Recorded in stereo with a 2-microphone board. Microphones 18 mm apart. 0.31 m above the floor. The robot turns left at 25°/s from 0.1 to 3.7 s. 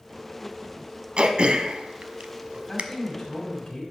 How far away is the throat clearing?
About 0.6 m.